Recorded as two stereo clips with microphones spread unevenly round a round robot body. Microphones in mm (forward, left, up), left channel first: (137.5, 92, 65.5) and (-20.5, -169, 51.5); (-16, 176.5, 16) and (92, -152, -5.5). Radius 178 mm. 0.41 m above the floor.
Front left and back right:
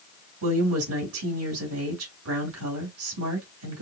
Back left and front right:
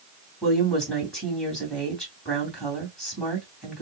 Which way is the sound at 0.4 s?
165° right.